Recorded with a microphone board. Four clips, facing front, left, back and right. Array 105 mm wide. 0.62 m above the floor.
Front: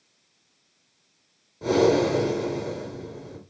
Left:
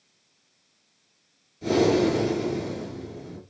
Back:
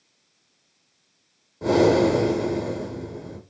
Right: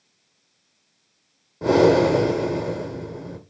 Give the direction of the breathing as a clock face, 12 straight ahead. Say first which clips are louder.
Right 5 dB, back 2 dB; 3 o'clock.